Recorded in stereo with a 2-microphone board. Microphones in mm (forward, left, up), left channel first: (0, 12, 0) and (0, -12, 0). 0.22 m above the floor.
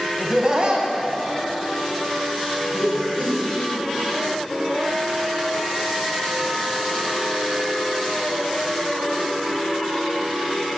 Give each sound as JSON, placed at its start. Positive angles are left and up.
{"t": 0.2, "sound": "laughter", "side_deg": -15, "distance_m": 1.0}